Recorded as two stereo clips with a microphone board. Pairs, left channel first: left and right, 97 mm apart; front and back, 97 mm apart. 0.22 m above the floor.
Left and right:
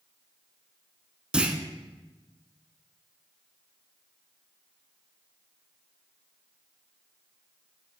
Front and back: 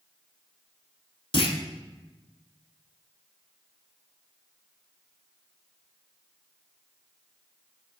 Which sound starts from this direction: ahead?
A clunk, at 1.3 s.